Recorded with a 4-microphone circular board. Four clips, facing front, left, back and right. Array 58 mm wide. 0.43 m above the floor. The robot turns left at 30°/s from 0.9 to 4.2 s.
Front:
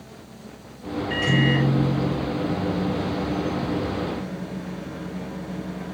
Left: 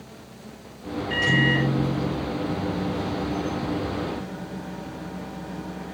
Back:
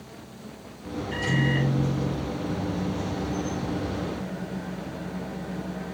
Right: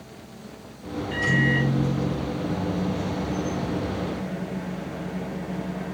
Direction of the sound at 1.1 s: 30° left.